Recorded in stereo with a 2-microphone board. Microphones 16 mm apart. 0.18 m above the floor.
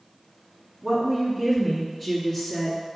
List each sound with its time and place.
0.8 s a woman speaking: 10° right (ahead or behind), 1.4 m; by 2.8 s 15° left (ahead or behind), 2.0 m